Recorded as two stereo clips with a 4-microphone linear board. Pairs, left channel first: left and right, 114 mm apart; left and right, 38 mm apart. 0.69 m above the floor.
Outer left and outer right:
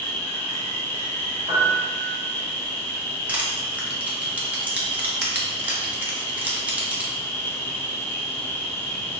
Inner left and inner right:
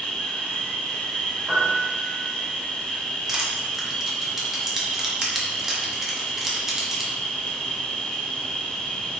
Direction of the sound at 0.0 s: 20° left (ahead or behind).